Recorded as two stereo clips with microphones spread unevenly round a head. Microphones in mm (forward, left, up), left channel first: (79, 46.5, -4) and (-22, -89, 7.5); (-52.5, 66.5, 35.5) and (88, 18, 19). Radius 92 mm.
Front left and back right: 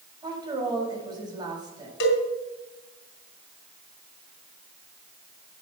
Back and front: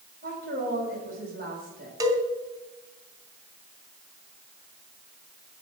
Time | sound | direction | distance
0.2 | a woman speaking | 65° right | 6.5 m
2.0 | a cowbell | 50° left | 3 m